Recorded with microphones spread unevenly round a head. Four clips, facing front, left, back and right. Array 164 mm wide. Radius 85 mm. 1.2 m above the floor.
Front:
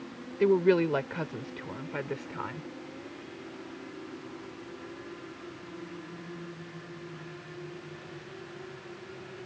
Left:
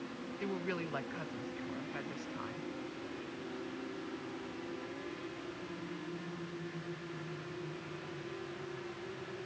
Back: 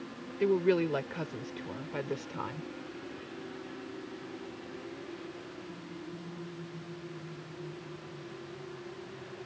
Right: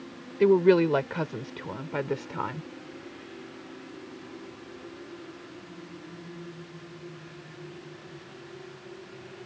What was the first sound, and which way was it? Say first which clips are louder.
A woman speaking: right 20 dB, front 4 dB; 75° right.